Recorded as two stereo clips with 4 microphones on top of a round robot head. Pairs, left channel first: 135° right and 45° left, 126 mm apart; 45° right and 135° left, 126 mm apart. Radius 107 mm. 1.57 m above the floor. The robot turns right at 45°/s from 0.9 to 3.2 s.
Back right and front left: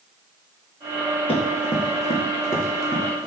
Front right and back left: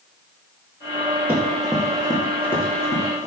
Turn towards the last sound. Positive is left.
turn(degrees=-70)